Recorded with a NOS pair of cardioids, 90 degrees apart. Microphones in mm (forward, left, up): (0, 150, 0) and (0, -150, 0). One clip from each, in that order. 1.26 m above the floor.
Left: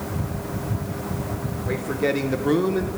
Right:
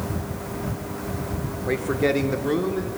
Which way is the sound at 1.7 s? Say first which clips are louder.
Right 2 dB; 30° right.